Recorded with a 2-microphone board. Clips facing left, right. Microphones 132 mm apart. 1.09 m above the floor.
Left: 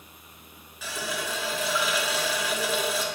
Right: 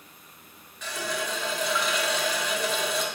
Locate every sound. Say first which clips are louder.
0.8 s a running tap: right 1 dB; 5° left (ahead or behind), 0.5 m